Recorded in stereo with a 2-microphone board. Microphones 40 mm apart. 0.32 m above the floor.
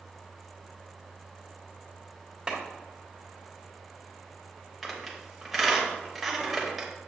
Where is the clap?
15° right (ahead or behind), 1.5 m.